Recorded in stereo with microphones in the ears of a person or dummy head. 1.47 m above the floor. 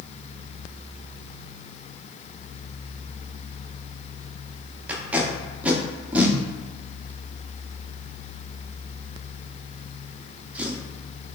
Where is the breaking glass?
I don't hear breaking glass.